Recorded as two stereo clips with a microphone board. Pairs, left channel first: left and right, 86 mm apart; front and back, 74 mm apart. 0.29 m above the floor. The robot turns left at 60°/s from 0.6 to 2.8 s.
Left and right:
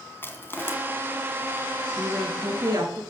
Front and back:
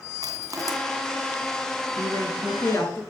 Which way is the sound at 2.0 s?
5° right.